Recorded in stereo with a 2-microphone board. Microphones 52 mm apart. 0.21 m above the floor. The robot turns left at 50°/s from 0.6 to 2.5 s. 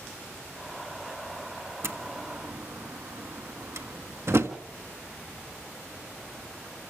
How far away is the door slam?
About 1.4 m.